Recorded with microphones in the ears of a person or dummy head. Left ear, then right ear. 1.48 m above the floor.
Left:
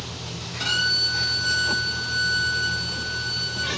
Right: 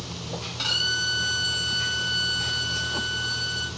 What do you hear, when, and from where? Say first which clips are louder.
0.6 s a violin: left 3 dB; 60° right (ahead or behind), 1.1 m